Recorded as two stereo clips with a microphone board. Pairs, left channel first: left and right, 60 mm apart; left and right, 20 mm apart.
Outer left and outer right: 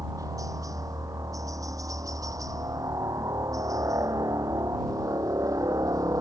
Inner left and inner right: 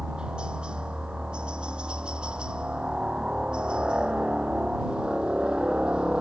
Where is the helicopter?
65° right (ahead or behind).